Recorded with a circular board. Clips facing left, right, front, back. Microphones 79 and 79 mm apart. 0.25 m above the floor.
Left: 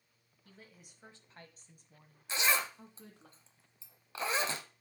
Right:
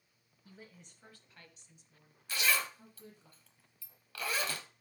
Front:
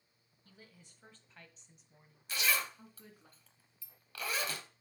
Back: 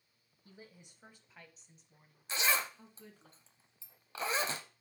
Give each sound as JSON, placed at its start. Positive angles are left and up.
{"t": 0.5, "sound": "a woman speaking", "azimuth_deg": -150, "distance_m": 1.2}
{"t": 2.3, "sound": "a zipper", "azimuth_deg": 140, "distance_m": 0.8}